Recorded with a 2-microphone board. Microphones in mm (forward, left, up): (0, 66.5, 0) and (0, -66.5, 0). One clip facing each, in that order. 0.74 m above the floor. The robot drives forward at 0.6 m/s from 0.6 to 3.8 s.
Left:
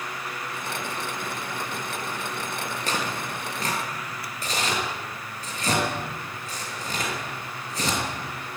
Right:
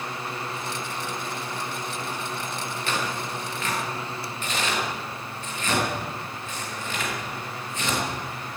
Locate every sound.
2.9 s tearing paper: 40° left (ahead or behind), 6 m; by 8.0 s 35° left (ahead or behind), 6.5 m